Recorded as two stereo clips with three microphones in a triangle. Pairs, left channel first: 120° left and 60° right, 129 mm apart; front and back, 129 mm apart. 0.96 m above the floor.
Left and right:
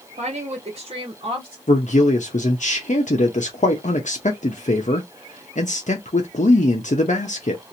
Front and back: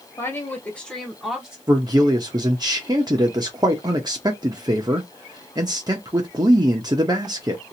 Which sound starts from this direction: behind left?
A man speaking, at 1.7 s.